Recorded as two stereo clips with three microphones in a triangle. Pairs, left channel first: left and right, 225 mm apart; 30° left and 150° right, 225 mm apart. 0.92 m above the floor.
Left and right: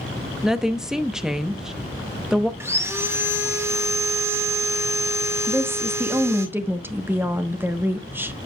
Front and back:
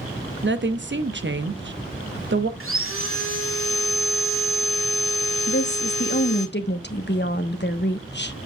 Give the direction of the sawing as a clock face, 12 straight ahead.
6 o'clock.